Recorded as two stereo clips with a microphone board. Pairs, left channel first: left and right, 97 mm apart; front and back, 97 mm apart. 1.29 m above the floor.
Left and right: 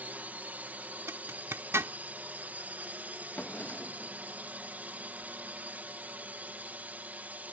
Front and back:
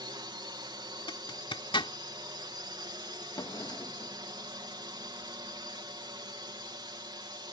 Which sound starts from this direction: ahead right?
A zipper, at 1.1 s.